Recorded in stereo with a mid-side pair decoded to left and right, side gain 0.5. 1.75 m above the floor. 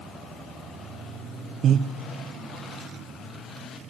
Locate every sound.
1.6 s breathing: 60° right, 0.5 m